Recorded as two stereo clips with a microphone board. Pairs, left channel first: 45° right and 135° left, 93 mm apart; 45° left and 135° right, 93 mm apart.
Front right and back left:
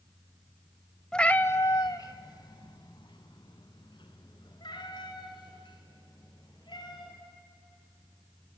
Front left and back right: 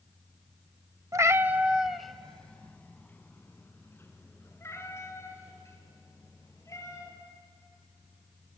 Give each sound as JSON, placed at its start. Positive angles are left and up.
{"t": 1.1, "sound": "a cat meowing", "azimuth_deg": -120, "distance_m": 0.6}